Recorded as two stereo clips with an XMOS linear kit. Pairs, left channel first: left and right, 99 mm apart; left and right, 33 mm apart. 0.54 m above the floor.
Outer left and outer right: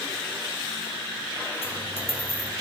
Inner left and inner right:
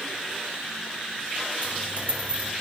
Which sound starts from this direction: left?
A dropped coin, at 1.6 s.